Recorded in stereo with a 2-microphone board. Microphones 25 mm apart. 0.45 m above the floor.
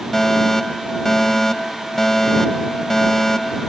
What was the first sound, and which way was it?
A fire alarm, 20° left (ahead or behind).